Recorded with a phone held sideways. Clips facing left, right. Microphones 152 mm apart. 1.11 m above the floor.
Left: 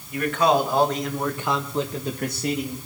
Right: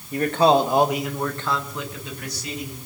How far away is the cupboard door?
I don't hear a cupboard door.